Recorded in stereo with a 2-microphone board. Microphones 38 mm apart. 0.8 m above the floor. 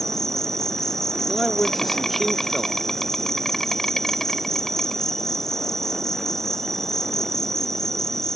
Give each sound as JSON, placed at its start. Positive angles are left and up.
{"t": 0.0, "sound": "an insect", "side_deg": 10}
{"t": 1.3, "sound": "a man speaking", "side_deg": 0}